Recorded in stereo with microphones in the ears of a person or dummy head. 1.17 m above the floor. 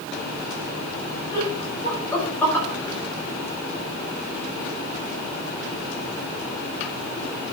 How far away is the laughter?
About 6 m.